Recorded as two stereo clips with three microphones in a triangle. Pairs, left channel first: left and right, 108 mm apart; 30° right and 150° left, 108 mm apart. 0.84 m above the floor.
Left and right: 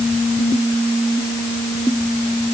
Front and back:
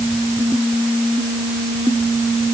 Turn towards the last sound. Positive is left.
No sound to turn to.